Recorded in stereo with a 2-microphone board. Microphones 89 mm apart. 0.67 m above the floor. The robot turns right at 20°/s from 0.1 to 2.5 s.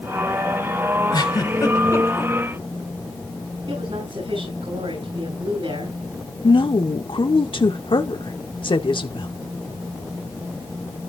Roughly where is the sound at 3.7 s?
Right.